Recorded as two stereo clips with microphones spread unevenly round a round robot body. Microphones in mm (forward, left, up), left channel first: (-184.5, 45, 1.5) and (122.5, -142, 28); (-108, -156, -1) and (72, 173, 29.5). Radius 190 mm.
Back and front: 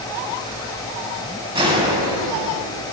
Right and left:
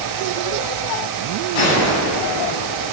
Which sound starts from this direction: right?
A gunshot, at 1.6 s.